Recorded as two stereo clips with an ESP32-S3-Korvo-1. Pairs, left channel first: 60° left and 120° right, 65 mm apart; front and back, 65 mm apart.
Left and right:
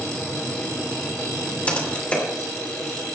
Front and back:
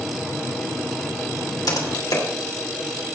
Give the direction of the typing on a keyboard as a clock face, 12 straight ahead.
12 o'clock.